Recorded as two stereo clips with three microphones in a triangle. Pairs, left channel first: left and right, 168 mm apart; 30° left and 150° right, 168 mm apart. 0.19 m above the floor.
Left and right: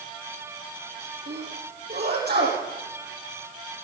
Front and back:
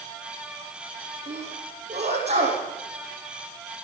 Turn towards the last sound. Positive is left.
turn(degrees=-100)